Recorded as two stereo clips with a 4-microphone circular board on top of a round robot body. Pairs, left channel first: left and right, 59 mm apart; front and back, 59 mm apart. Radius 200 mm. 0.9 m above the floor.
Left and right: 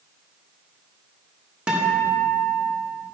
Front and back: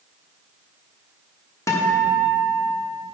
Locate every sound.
1.7 s a guitar: 20° right, 1.3 m